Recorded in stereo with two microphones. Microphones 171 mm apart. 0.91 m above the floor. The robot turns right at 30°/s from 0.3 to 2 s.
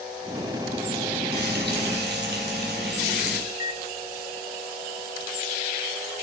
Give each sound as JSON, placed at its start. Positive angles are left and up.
{"t": 1.3, "sound": "frying", "side_deg": -75, "distance_m": 5.5}
{"t": 3.5, "sound": "a microwave", "side_deg": 45, "distance_m": 0.5}